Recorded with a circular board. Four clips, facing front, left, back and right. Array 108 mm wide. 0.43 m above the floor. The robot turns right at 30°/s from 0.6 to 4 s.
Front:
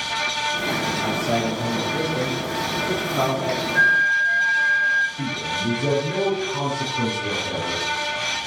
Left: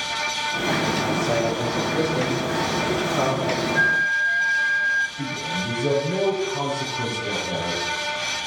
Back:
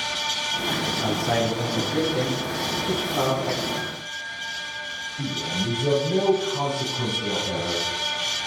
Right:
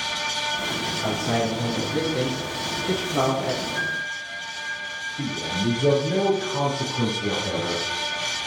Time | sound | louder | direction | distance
1.0 | a man speaking | left 2 dB, back 1 dB | 155° right | 8 m
3.8 | a flute | left 8 dB, front 14 dB | 20° left | 0.7 m
5.2 | a man speaking | right 1 dB, front 2 dB | 70° right | 6.5 m